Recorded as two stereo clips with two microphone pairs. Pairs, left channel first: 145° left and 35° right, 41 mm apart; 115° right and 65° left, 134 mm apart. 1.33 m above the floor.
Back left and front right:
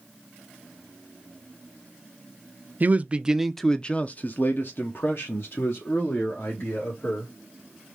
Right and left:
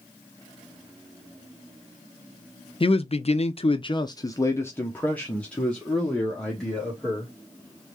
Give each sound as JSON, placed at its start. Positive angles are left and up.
{"t": 2.8, "sound": "a man speaking", "azimuth_deg": -75, "distance_m": 0.6}